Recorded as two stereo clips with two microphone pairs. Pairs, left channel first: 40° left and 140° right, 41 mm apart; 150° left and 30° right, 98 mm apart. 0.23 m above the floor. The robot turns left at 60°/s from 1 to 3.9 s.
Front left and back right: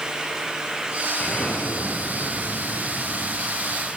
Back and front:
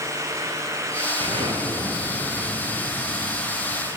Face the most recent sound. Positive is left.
turn(degrees=-175)